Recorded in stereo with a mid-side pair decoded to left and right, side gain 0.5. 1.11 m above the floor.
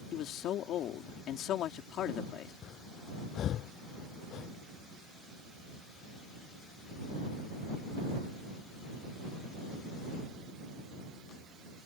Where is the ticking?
I don't hear ticking.